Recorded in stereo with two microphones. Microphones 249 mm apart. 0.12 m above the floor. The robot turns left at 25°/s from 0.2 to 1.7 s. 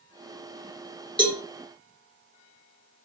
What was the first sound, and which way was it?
A cowbell, 20° right (ahead or behind).